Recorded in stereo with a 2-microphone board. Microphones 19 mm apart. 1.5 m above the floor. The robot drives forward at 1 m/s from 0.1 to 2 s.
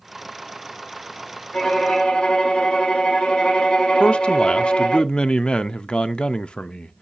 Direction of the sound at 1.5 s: 60° left (ahead or behind).